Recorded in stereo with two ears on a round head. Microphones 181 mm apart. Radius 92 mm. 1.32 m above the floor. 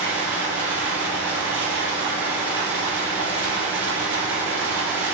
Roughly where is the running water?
Centre.